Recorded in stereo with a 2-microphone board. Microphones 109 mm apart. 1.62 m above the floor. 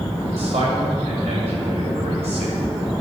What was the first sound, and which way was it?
A man speaking, 70° right (ahead or behind).